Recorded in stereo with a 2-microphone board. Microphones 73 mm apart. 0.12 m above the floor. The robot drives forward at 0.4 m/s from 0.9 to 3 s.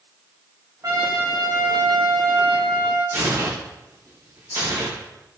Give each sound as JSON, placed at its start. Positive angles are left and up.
{"t": 0.8, "sound": "a trumpet", "side_deg": -50, "distance_m": 4.0}
{"t": 3.1, "sound": "tearing paper", "side_deg": -55, "distance_m": 6.0}